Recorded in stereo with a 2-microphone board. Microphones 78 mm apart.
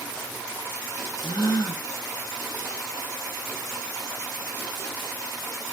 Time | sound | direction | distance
1.2 | a gasp | 60° left (ahead or behind) | 1.1 m